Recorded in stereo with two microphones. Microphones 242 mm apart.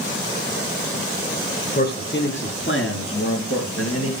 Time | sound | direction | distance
1.8 | a man speaking | 40° left (ahead or behind) | 3.5 m